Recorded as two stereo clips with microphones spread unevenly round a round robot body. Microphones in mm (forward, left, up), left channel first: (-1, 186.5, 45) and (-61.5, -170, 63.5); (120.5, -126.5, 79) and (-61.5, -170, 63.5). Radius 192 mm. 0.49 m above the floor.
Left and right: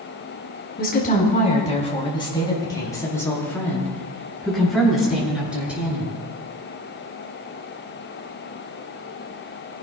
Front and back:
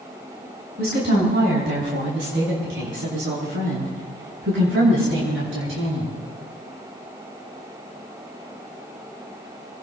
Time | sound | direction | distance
0.8 | a woman speaking | 145° left | 5 m